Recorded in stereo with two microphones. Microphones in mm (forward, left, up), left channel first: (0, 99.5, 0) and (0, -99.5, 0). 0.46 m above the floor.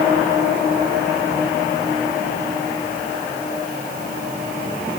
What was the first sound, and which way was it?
Only background noise.